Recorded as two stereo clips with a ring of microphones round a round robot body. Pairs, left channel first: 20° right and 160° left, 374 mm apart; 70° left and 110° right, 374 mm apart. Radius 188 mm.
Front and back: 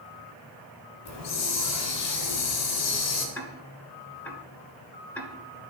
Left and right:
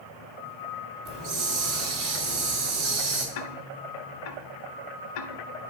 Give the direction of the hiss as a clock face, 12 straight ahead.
2 o'clock.